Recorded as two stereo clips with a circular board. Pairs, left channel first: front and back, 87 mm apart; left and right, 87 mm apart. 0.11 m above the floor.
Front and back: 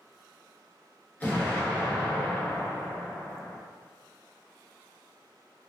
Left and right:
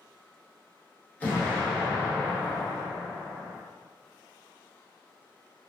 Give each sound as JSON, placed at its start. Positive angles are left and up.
{"t": 1.2, "sound": "an explosion", "azimuth_deg": 45, "distance_m": 1.1}